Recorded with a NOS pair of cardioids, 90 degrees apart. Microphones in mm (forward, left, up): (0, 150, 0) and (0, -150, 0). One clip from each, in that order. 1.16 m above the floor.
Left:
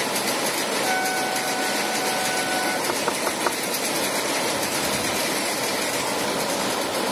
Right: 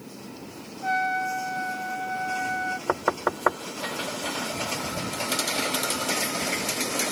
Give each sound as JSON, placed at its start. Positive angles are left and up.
{"t": 0.8, "sound": "a trumpet", "azimuth_deg": -5}
{"t": 2.9, "sound": "knocking", "azimuth_deg": -20}